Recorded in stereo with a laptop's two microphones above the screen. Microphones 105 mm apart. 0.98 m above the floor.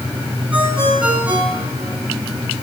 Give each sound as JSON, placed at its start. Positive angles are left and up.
{"t": 0.5, "sound": "a ringtone", "side_deg": -10, "distance_m": 6.5}